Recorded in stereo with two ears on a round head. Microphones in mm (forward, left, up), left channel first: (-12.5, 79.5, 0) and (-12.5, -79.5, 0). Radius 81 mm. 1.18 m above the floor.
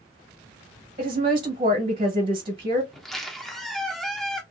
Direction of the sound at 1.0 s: 35° right (ahead or behind).